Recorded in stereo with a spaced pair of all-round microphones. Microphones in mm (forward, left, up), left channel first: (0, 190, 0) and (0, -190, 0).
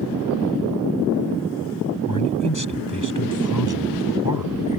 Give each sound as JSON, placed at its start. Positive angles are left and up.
{"t": 2.1, "sound": "a man speaking", "side_deg": 55}